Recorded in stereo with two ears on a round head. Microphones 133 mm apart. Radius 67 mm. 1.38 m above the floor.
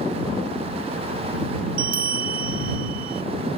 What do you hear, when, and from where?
1.8 s a bell: 65° right (ahead or behind)